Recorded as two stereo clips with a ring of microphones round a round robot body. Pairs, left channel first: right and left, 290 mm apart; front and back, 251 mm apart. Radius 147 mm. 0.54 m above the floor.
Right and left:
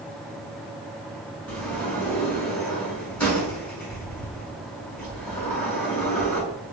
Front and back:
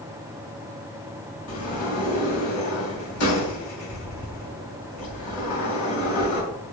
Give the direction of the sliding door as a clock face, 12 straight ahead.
12 o'clock.